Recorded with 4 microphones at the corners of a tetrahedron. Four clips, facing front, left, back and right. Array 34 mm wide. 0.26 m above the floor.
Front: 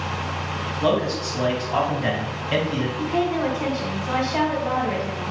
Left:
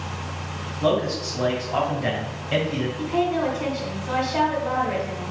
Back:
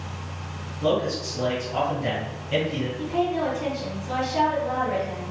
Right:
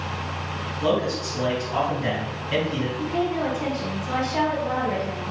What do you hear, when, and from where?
0.8 s a man speaking: 20° left, 1.9 m
3.0 s a woman speaking: 10° left, 2 m